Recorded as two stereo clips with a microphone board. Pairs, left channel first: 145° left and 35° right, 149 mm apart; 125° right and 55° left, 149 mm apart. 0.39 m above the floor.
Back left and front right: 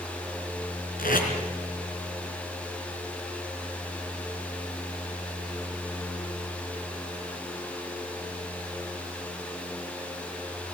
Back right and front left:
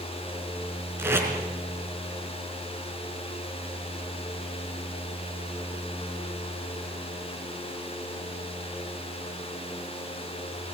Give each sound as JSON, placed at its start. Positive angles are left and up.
{"t": 1.0, "sound": "tape being pulled", "azimuth_deg": 130, "distance_m": 4.0}